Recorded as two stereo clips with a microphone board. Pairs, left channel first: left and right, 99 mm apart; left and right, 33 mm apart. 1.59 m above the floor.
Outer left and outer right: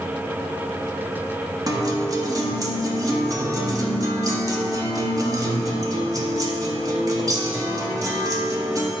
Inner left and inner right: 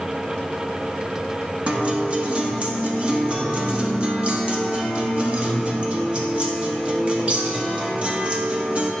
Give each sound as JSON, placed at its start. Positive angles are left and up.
{"t": 1.7, "sound": "a guitar", "side_deg": -35, "distance_m": 1.1}